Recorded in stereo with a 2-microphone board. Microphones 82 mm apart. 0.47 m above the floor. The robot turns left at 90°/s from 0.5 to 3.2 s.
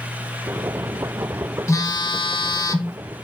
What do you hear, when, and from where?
1.7 s a phone buzzing: 140° left, 0.8 m; by 3.0 s 25° left, 0.8 m